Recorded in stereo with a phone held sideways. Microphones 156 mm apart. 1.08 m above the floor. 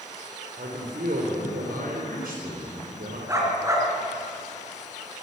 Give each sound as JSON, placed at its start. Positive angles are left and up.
{"t": 0.6, "sound": "a man speaking", "side_deg": -85, "distance_m": 4.0}
{"t": 3.3, "sound": "a dog barking", "side_deg": -20, "distance_m": 4.0}